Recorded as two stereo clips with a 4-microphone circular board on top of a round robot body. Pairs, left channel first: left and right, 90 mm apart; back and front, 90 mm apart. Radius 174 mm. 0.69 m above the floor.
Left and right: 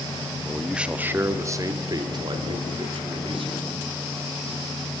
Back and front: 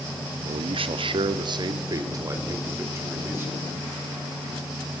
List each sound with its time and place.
0.5 s a man speaking: straight ahead, 1.6 m; by 3.6 s 70° right, 3.5 m